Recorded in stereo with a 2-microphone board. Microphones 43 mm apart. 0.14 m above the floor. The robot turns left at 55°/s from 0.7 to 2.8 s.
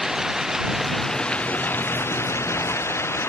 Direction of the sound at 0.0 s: 170° right.